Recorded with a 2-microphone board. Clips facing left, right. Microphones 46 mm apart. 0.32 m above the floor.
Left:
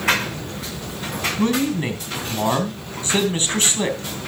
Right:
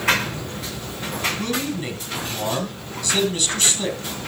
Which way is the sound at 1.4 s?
35° left (ahead or behind).